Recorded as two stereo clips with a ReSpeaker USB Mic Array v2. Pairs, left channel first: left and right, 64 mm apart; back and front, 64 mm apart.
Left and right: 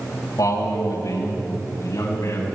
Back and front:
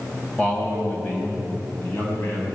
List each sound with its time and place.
0.4 s a man speaking: 110° left, 4 m; by 2.5 s 130° left, 5.5 m